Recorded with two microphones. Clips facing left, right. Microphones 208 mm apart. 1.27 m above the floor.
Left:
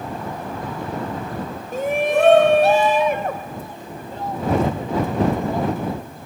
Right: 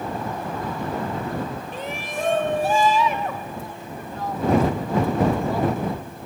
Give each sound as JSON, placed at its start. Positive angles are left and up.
{"t": 1.7, "sound": "a shout", "side_deg": 45}